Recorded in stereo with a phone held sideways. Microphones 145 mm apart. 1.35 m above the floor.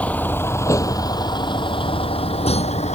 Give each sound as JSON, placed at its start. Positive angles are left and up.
{"t": 0.0, "sound": "a vehicle", "side_deg": 10}